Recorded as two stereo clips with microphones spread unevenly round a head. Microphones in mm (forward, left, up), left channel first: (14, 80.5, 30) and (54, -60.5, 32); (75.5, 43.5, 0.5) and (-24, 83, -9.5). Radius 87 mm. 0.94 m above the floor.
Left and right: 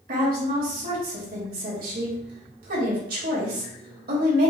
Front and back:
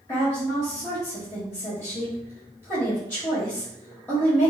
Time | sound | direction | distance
0.1 | a woman speaking | 100° right | 1.9 m